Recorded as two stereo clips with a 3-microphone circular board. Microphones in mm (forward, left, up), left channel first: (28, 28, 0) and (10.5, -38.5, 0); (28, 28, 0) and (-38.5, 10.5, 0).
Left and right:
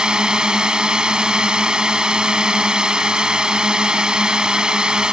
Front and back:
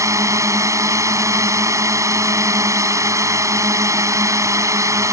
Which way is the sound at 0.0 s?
Straight behind.